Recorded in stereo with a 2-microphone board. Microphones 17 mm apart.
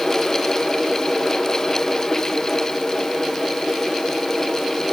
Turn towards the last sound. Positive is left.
No sound to turn to.